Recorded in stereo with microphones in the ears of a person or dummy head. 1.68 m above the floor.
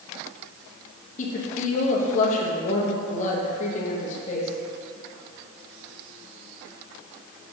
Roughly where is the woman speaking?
Left.